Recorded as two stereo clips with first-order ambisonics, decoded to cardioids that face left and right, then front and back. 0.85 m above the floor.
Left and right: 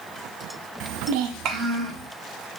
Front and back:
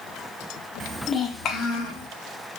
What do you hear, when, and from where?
0.8 s a child speaking: 120° right, 0.5 m; by 2.1 s 35° right, 1.3 m